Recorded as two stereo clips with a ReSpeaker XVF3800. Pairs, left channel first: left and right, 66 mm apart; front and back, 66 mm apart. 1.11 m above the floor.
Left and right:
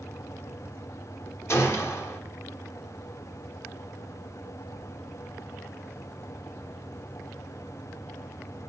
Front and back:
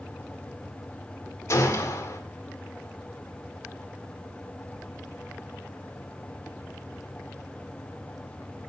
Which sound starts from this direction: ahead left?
A gunshot, at 1.5 s.